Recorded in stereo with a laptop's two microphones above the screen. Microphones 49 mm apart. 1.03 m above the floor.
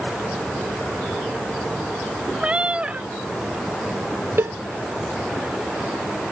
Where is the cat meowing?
25° right (ahead or behind).